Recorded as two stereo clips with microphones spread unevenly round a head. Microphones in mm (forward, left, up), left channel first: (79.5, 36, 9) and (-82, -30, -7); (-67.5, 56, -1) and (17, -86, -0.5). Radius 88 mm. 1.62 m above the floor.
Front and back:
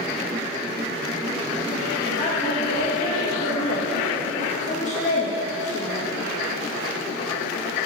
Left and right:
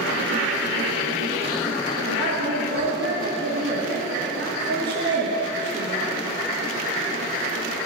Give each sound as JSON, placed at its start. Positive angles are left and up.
{"t": 2.0, "sound": "a woman speaking", "azimuth_deg": -30, "distance_m": 1.8}